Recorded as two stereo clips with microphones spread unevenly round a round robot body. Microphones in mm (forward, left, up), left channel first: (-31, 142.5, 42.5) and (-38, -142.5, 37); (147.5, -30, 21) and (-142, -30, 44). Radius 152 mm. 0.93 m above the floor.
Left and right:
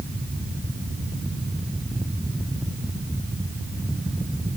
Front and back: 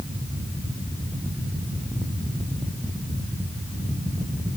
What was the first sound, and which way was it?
Only background noise.